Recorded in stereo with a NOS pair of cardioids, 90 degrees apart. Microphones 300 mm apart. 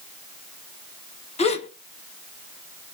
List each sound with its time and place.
1.4 s a gasp: 20° left, 0.7 m